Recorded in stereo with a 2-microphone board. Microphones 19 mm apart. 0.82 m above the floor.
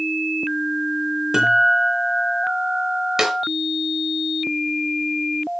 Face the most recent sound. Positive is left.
turn(degrees=-25)  # may be behind; listen again after turning